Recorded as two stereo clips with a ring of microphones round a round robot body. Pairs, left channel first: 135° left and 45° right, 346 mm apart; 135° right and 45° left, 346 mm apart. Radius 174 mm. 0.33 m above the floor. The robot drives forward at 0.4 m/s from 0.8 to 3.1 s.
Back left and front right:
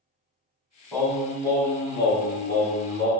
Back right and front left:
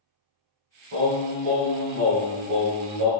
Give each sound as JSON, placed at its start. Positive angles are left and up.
{"t": 0.9, "sound": "singing", "azimuth_deg": 45, "distance_m": 2.0}